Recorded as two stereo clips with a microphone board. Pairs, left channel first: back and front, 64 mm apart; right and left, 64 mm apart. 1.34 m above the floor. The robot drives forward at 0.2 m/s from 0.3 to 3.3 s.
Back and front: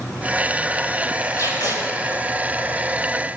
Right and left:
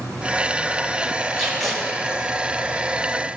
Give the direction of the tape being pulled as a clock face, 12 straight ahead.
6 o'clock.